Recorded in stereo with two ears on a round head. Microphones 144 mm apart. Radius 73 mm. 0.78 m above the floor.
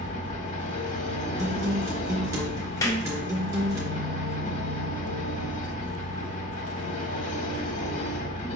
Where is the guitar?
20° right (ahead or behind), 1.6 m.